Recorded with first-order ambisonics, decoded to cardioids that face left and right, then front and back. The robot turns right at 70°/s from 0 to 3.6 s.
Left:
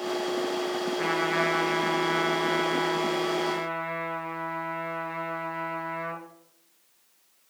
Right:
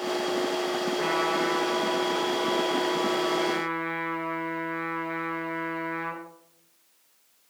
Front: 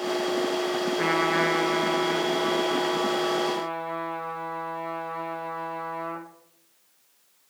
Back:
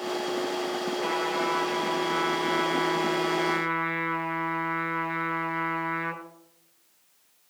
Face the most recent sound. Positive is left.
turn(degrees=-165)